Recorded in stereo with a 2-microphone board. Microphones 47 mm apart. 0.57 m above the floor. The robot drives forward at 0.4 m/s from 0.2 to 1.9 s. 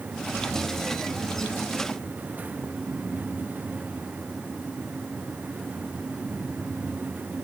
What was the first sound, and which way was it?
Only background noise.